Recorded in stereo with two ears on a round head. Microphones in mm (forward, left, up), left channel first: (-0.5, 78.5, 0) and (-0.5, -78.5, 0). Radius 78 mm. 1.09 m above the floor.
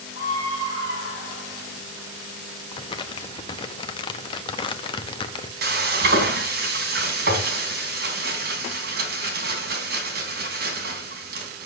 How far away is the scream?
About 5 m.